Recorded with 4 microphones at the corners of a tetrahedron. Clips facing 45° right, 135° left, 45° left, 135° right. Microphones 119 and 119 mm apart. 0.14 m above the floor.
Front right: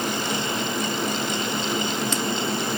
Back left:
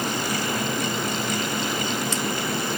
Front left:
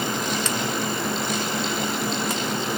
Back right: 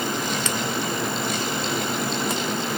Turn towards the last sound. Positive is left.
No sound to turn to.